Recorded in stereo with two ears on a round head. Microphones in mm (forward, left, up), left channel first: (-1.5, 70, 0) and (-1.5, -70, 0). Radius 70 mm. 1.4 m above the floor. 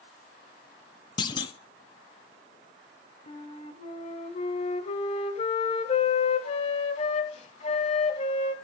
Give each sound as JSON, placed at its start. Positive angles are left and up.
{"t": 1.2, "sound": "a clunk", "side_deg": 25, "distance_m": 0.9}
{"t": 3.3, "sound": "a flute", "side_deg": 40, "distance_m": 1.4}